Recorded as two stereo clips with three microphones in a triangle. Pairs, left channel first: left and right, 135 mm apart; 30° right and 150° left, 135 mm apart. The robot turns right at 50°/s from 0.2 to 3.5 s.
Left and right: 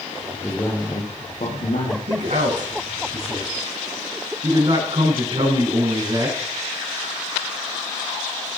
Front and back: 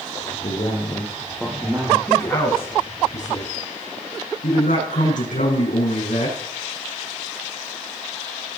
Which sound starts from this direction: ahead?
A man speaking, at 0.4 s.